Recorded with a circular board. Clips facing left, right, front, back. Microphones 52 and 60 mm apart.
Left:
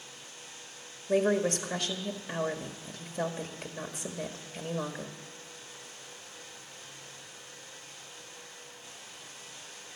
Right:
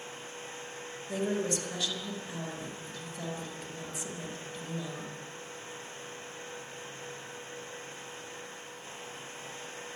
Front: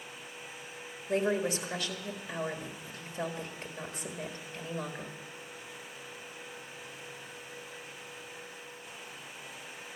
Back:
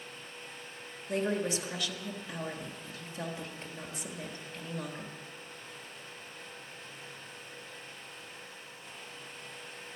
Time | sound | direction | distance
1.1 | a woman speaking | 85° left | 1.4 m